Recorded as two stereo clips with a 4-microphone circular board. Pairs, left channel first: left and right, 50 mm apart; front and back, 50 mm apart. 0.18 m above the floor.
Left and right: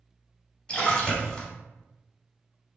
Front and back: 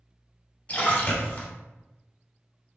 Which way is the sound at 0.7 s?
40° left.